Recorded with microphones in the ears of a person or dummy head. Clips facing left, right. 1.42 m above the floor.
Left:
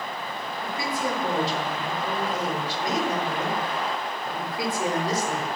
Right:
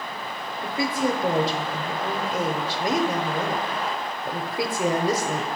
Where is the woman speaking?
55° right (ahead or behind), 0.6 m.